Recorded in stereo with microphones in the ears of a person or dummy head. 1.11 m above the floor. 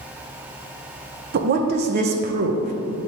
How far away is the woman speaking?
About 0.6 m.